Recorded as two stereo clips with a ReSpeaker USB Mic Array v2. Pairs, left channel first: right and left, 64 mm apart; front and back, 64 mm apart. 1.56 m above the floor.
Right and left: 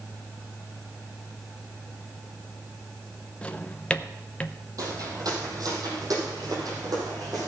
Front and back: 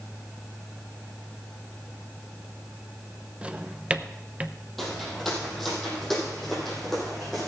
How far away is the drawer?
About 0.7 m.